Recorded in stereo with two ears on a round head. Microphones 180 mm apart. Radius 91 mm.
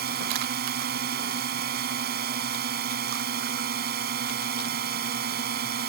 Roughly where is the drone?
Right.